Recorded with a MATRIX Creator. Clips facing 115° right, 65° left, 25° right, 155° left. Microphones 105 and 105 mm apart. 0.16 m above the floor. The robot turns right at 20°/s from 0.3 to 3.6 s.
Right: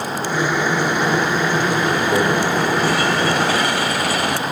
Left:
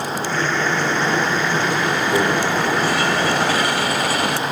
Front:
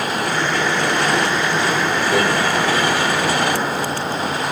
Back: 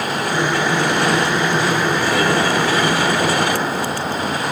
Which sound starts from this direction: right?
A microwave, at 2.1 s.